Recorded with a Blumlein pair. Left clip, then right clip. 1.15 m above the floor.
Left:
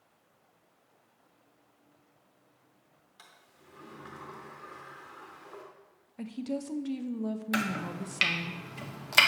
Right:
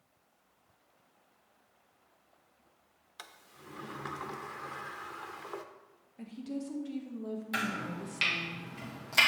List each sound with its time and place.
3.2 s a sliding door: 60° right, 0.7 m
6.2 s a woman speaking: 65° left, 0.7 m
7.5 s chopping: 70° left, 1.2 m